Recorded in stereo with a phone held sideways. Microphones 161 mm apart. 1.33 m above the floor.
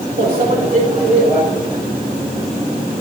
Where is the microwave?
70° right (ahead or behind), 3 m.